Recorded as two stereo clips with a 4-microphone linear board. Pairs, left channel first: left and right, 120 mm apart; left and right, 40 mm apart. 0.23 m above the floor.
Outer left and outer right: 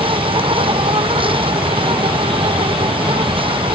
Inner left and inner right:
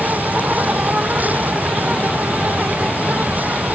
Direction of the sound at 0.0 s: 50° right (ahead or behind).